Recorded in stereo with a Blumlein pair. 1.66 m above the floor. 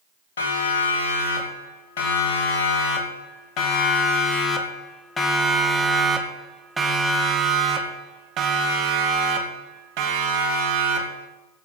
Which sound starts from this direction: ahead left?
A siren, at 0.4 s.